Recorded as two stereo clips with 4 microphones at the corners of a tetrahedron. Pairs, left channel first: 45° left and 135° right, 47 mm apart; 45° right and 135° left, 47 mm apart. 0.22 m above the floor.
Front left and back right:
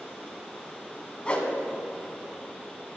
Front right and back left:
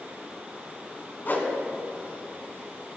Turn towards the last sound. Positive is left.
turn(degrees=-15)